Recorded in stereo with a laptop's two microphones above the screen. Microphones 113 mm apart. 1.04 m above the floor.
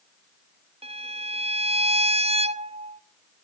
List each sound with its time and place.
0.8 s a violin: 60° right (ahead or behind), 0.6 m